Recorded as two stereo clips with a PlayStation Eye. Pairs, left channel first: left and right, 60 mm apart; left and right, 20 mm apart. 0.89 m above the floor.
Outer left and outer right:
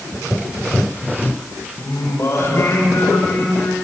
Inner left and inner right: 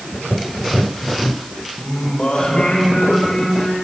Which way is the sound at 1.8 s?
50° left (ahead or behind).